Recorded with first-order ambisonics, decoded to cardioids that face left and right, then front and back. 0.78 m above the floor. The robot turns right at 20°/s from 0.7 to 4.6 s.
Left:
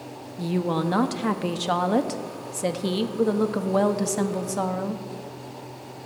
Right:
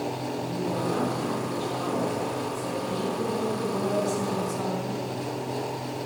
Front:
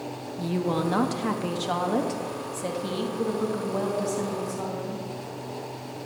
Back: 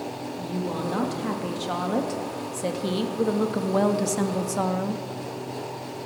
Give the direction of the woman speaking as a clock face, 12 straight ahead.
10 o'clock.